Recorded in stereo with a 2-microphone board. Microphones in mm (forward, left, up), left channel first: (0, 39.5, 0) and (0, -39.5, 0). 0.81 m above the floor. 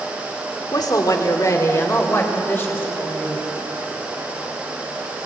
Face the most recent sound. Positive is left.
turn(degrees=25)  # may be behind; listen again after turning